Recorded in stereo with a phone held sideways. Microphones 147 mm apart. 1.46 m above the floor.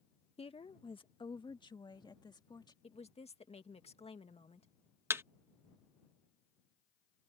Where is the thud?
15° right (ahead or behind).